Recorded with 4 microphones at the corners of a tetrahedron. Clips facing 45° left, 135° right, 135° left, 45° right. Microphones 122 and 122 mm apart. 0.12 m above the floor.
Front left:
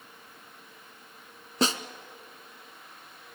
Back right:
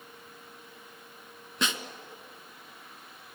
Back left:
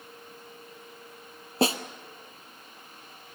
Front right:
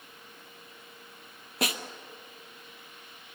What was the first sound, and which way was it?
A snare drum, 85° left.